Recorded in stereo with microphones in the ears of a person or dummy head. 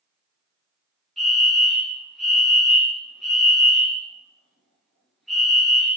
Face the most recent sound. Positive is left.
turn(degrees=0)  # may be behind; listen again after turning